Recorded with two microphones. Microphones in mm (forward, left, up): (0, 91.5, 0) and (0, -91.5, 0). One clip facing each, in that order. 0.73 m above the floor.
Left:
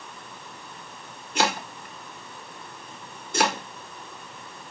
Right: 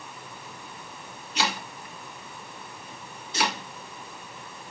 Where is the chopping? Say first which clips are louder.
Left 5 dB; 50° left (ahead or behind), 0.7 m.